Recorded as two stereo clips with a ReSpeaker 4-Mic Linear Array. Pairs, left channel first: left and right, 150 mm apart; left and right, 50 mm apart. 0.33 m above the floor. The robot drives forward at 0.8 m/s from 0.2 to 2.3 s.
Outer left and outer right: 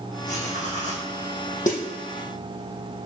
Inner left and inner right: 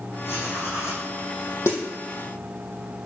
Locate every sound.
0.2 s writing: 50° left (ahead or behind), 5 m; by 1.1 s 55° left (ahead or behind), 5 m
1.7 s a snare drum: 60° left (ahead or behind), 3.5 m